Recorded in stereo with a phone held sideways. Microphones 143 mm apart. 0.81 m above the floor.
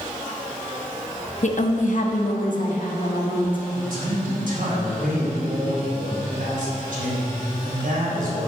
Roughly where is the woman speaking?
Left.